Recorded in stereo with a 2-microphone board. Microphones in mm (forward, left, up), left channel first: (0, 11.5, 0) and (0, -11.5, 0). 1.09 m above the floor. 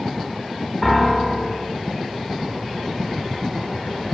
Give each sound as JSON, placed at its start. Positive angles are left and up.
{"t": 0.8, "sound": "a piano", "side_deg": 0, "distance_m": 2.0}